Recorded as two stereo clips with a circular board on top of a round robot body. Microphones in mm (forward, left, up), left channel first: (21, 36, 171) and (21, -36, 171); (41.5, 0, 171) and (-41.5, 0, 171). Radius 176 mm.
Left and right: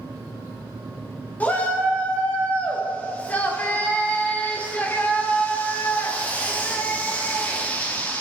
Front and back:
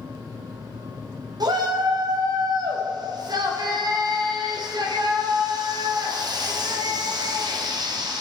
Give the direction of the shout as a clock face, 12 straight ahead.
7 o'clock.